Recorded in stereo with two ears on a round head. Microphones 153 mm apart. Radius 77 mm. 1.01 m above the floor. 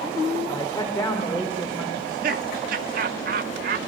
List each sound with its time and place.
0.5 s a woman speaking: 15° left (ahead or behind), 3.5 m; by 1.9 s 5° right (ahead or behind), 4 m
2.0 s laughter: 50° right (ahead or behind), 1.6 m